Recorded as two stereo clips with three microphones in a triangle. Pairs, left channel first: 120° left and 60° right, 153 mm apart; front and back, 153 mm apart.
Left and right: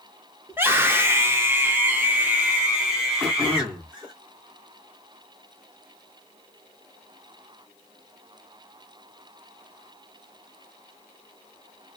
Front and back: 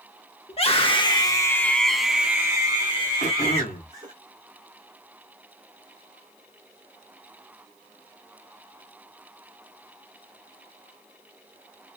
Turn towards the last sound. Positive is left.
turn(degrees=0)